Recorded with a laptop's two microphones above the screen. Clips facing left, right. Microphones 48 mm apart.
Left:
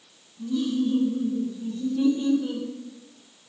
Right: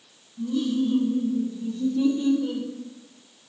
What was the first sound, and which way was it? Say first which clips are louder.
Laughter: right 1 dB; 55° right (ahead or behind).